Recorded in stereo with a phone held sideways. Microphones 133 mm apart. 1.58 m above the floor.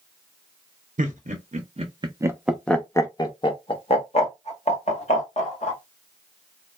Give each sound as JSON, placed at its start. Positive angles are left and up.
{"t": 1.0, "sound": "laughter", "side_deg": -75, "distance_m": 0.9}